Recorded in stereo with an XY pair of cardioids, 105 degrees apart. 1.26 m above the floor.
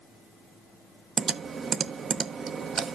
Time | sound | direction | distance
1.2 | typing on a keyboard | 45° right | 0.7 m